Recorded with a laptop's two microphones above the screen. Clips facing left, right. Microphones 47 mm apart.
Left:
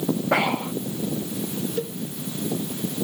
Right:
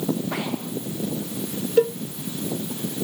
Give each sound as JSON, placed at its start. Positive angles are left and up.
{"t": 0.3, "sound": "breathing", "side_deg": 75}
{"t": 1.8, "sound": "a cowbell", "side_deg": -70}